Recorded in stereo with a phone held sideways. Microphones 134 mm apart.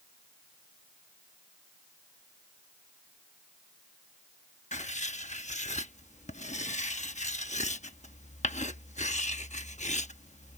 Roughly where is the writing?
Left.